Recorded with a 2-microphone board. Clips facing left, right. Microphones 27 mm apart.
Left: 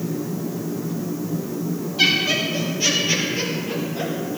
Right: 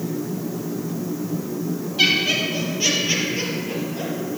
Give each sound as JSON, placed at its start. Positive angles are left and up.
{"t": 2.0, "sound": "laughter", "side_deg": -20, "distance_m": 4.0}